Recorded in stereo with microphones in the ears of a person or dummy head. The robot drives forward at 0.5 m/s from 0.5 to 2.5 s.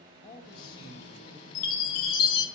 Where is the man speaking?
35° left (ahead or behind), 4.5 m; by 1.4 s 40° left (ahead or behind), 4 m.